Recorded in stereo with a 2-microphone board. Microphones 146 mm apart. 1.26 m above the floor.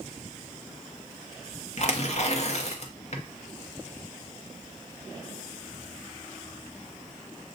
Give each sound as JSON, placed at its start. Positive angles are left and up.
{"t": 1.8, "sound": "tearing paper", "side_deg": 50, "distance_m": 0.8}